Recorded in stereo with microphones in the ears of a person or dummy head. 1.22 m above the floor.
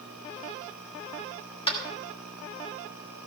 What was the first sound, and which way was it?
Tapping, 25° left (ahead or behind).